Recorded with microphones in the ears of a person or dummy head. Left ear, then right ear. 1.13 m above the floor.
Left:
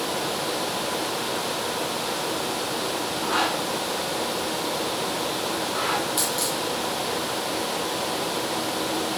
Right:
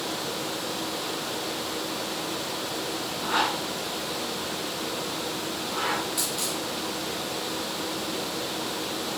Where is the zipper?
5° left (ahead or behind), 2 m.